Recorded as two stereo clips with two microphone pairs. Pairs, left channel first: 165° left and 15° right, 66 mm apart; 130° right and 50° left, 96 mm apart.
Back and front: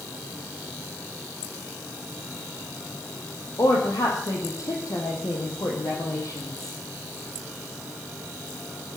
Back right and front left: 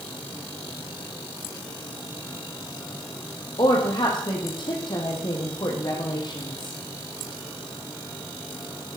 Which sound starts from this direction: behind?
A woman speaking, at 3.6 s.